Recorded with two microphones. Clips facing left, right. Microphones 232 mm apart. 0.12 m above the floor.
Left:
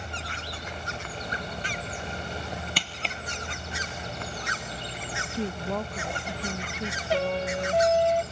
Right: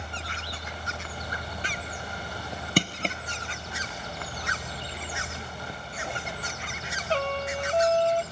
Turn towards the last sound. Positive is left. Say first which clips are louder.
# left 2 dB
turn(degrees=10)  # may be behind; listen again after turning